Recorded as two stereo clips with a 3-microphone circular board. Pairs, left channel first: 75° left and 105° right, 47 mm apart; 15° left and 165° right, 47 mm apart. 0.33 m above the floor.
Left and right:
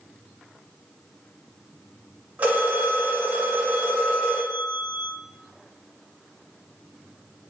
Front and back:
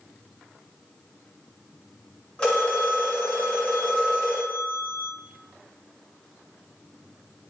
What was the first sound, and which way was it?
A phone ringing, 55° right.